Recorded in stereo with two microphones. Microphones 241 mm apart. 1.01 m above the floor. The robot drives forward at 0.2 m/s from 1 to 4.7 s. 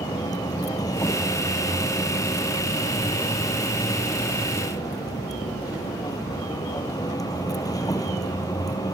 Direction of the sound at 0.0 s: 15° left (ahead or behind).